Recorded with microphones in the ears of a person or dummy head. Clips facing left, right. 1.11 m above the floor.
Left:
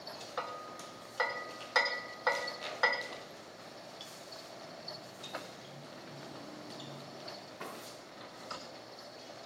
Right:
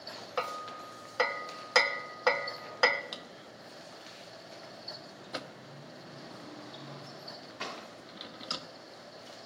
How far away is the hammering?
About 0.7 m.